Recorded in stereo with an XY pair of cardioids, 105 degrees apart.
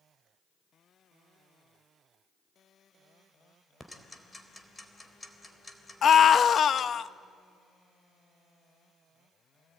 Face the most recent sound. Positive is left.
turn(degrees=50)